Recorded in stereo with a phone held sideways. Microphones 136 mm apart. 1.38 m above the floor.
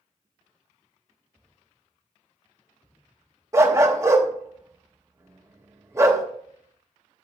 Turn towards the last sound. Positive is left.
turn(degrees=-25)  # may be behind; listen again after turning